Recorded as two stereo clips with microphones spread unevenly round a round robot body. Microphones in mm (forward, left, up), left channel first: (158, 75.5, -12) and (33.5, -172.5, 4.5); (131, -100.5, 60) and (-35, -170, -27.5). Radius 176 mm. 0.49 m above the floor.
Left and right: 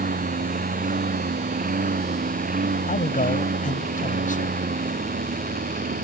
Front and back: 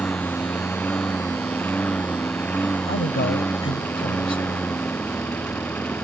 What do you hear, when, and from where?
0.0 s a lawn mower: 55° right
2.9 s a man speaking: 5° left